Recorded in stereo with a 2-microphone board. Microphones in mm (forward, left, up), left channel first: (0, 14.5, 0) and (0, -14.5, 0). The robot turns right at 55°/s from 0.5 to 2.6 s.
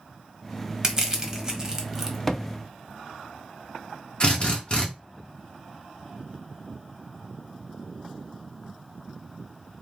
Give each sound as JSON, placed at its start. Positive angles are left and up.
{"t": 0.8, "sound": "crushing", "side_deg": -25, "distance_m": 1.2}
{"t": 2.3, "sound": "a thud", "side_deg": 15, "distance_m": 0.6}
{"t": 4.2, "sound": "a drill", "side_deg": 30, "distance_m": 1.7}